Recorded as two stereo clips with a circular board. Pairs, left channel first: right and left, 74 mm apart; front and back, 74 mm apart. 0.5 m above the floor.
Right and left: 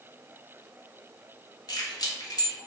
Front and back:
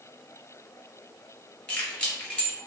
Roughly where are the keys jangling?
Right.